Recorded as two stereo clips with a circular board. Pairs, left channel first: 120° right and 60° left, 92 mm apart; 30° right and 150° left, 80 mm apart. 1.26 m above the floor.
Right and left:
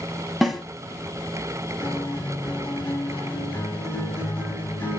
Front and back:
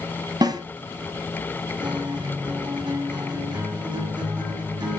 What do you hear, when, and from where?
0.4 s a snare drum: 150° left, 1.8 m
1.8 s a guitar: 175° left, 7.5 m